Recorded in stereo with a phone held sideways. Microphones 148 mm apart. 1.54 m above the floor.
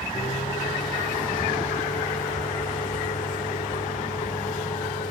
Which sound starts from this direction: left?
A microwave, at 0.1 s.